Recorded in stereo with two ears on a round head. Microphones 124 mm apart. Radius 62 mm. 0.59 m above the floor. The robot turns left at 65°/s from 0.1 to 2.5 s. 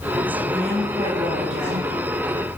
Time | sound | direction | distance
0.5 | a woman speaking | 10° left | 9.5 m